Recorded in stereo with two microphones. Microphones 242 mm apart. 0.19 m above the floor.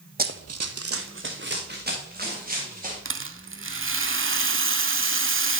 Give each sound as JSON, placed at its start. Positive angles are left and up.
{"t": 0.2, "sound": "running footsteps", "side_deg": -35, "distance_m": 0.6}
{"t": 3.0, "sound": "a rattle", "side_deg": -55, "distance_m": 0.6}